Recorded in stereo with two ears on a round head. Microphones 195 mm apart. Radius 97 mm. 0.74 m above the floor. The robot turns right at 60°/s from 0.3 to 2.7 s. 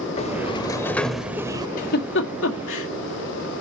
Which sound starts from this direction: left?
A giggle, at 1.8 s.